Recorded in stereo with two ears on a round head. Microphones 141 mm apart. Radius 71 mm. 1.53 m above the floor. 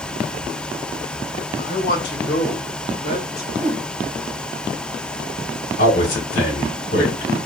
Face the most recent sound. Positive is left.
turn(degrees=85)